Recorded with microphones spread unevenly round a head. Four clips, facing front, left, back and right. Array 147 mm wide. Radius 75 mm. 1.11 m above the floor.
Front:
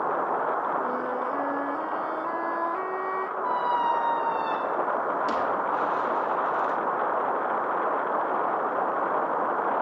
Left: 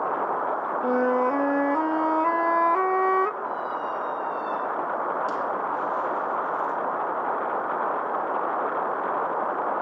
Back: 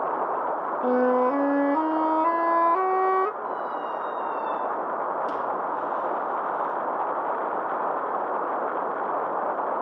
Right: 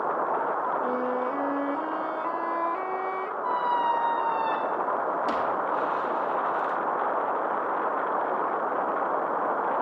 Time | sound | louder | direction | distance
0.8 | a flute | left 5 dB, back 7 dB | 135° left | 0.8 m
3.4 | a squeak | right 4 dB, front 5 dB | 70° right | 0.7 m